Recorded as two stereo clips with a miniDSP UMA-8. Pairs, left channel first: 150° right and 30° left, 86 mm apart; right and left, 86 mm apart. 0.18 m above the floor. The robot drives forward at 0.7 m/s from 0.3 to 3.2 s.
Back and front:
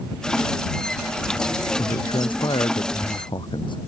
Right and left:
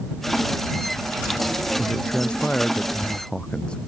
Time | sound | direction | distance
1.8 | a man speaking | 170° right | ?